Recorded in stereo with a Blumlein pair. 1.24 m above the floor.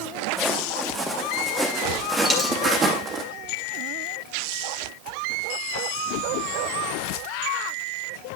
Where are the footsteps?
5° left, 5 m; by 3.2 s 25° right, 3 m.